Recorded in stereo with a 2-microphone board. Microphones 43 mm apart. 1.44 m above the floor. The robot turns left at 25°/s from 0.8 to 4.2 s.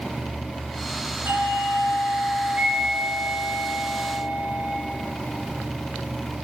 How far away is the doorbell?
About 4 m.